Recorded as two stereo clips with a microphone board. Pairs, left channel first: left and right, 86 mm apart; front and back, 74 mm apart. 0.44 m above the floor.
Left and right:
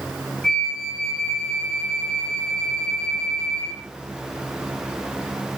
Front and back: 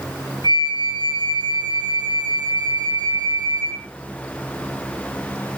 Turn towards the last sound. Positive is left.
turn(degrees=170)